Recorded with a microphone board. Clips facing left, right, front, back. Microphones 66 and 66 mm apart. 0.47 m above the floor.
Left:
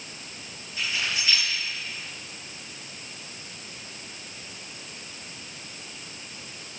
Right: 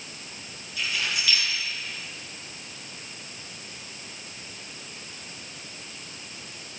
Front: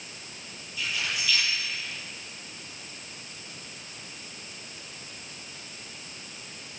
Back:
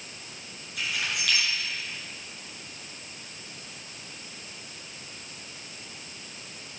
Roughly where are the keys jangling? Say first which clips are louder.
Even, even; behind left.